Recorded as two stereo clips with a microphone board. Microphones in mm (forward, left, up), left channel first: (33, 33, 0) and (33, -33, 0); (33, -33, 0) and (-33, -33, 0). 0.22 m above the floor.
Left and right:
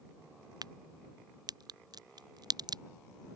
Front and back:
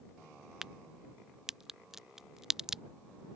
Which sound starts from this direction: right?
A crack, at 0.6 s.